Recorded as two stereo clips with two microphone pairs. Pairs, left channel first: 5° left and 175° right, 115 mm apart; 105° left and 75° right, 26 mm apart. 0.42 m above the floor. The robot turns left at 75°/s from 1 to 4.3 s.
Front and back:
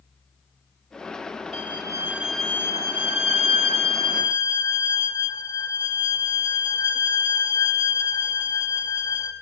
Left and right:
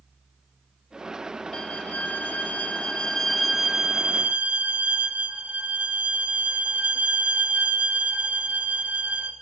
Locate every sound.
1.5 s a violin: 155° left, 0.9 m; by 9.3 s 50° right, 0.9 m